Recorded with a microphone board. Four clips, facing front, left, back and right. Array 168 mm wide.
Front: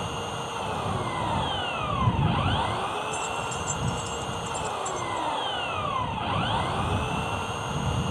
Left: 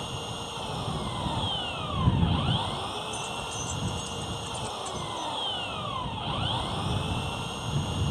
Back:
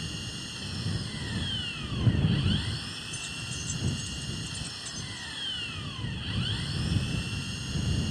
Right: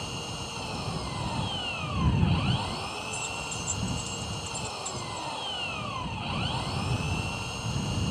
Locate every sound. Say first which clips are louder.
0.0 s an engine running: left 1 dB, front 10 dB; 10° left
3.1 s keys jangling: left 2 dB, front 13 dB; 50° left